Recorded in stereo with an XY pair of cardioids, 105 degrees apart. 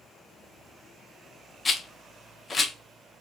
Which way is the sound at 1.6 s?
25° left.